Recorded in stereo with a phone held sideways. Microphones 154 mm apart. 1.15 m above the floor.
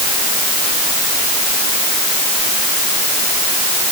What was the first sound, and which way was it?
Only background noise.